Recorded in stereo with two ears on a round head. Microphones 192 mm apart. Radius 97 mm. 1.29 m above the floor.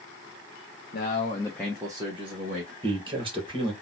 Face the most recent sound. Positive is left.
turn(degrees=-25)  # may be behind; listen again after turning